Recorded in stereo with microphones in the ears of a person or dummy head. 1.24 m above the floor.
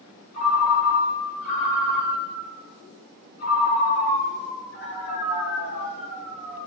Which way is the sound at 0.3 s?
50° left (ahead or behind).